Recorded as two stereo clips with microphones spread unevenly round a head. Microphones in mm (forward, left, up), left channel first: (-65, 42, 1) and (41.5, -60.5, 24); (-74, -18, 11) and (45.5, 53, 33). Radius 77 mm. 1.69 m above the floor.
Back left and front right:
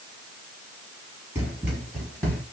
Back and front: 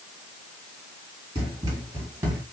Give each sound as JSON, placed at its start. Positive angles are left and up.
{"t": 1.4, "sound": "running footsteps", "azimuth_deg": 5, "distance_m": 2.0}